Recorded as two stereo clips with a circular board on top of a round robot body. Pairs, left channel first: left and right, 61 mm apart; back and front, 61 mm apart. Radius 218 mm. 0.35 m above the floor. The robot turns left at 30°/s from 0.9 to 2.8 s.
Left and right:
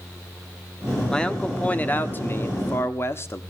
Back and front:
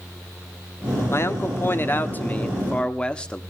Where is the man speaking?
165° left, 1.7 m; by 3.4 s 115° left, 1.7 m.